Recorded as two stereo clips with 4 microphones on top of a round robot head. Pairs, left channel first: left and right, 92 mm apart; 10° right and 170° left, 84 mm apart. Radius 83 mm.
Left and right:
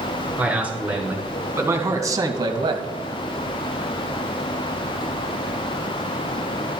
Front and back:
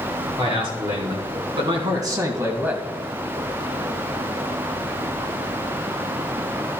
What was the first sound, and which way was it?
A man speaking, 165° right.